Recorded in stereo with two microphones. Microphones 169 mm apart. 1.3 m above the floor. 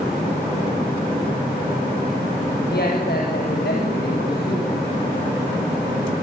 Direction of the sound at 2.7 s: 70° left (ahead or behind).